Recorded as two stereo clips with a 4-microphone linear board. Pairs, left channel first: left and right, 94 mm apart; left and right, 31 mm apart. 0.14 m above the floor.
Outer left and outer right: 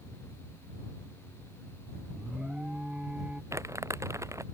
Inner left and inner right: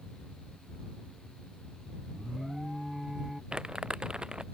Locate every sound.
2.1 s an alarm: 10° right (ahead or behind)
3.5 s crumpling: 30° right (ahead or behind)